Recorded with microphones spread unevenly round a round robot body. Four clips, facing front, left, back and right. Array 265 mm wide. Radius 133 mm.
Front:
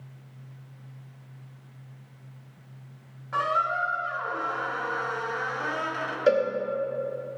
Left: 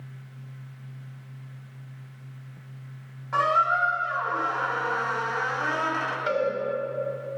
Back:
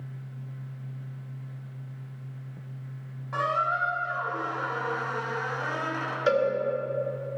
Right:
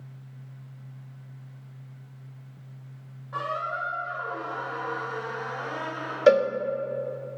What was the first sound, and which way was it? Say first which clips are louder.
A squeak: left 8 dB, front 1 dB; 55° left.